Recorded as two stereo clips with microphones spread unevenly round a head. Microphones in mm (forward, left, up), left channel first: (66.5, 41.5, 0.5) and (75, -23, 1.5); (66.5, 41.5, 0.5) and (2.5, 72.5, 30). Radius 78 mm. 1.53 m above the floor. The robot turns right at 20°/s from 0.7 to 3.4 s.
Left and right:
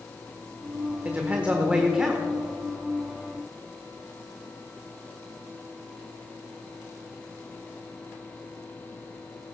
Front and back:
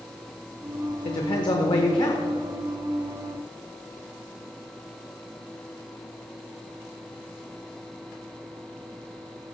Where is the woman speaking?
20° right, 1.2 m; by 2.2 s straight ahead, 1.2 m.